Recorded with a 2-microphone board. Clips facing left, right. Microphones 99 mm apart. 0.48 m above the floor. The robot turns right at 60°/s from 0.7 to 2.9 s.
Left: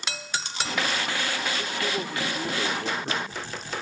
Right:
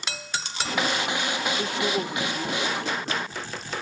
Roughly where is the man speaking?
Ahead right.